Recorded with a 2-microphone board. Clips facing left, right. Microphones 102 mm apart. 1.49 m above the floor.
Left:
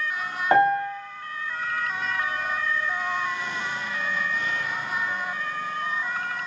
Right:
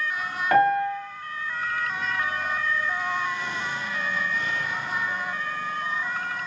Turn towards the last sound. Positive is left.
turn(degrees=25)  # may be behind; listen again after turning